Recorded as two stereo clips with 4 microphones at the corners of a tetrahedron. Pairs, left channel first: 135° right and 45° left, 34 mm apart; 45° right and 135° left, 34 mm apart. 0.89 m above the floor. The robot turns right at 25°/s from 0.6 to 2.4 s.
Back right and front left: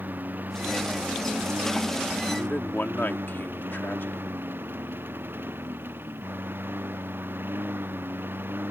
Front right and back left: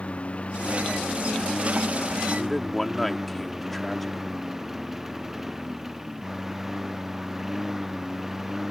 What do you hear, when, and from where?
0.0 s a lawn mower: 10° left; by 8.7 s 55° left
2.4 s a man speaking: 130° right